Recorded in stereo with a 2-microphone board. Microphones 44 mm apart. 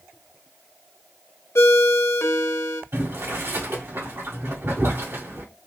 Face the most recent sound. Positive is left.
turn(degrees=-70)  # may be behind; listen again after turning